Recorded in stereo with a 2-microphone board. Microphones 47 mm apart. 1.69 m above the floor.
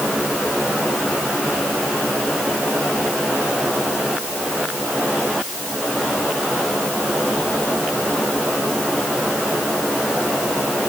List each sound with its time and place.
Only background noise.